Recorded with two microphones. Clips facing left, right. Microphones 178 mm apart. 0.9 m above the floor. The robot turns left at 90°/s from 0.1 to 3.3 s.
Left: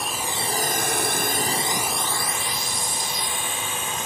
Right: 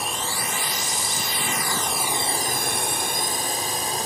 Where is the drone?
Centre (ahead or behind); by 4.1 s 35° right (ahead or behind).